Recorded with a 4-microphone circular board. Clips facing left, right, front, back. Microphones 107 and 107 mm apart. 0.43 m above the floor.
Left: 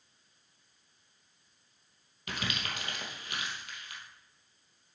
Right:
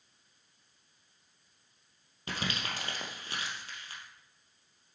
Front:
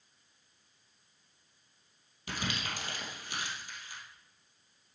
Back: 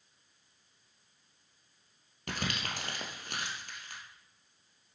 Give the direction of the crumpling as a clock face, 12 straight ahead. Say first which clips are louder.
Right 1 dB, back 1 dB; 5 o'clock.